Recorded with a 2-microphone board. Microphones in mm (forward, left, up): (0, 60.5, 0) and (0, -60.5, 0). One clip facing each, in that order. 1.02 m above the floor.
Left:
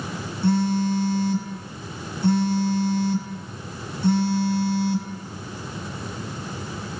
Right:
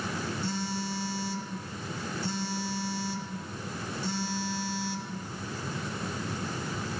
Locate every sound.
0.4 s a phone buzzing: 55° left (ahead or behind), 4 m